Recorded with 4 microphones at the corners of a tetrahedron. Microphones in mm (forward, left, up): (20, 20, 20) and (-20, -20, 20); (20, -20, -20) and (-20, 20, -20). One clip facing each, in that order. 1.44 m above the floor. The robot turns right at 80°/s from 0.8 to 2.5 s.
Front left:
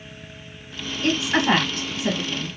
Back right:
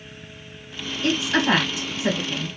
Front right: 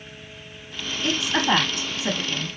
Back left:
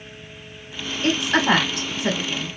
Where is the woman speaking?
90° left, 2 m; by 2.5 s 155° right, 2 m.